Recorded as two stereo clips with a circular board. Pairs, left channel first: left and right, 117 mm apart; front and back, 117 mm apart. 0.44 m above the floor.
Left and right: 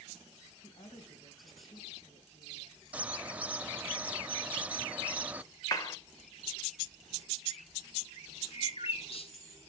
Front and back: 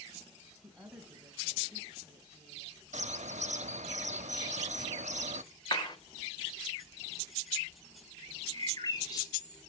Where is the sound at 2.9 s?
165° right, 0.6 m.